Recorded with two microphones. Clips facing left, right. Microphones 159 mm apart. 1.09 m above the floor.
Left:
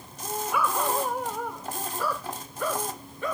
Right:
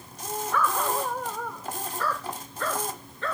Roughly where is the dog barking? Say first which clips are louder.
Even; centre.